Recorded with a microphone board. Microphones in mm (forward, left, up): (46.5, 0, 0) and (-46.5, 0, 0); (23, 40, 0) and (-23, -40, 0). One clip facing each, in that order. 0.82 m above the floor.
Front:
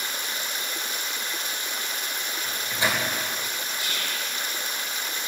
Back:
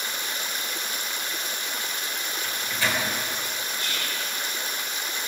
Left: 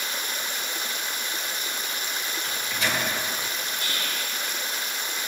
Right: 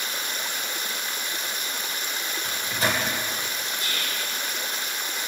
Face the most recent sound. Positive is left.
turn(degrees=80)